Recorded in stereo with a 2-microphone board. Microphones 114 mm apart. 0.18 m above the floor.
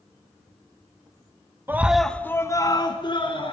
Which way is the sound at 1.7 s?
20° right (ahead or behind).